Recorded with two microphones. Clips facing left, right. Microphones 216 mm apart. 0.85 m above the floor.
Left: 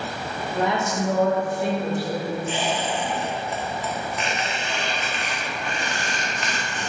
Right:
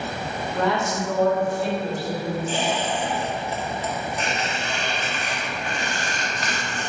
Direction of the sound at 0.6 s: 10° left (ahead or behind).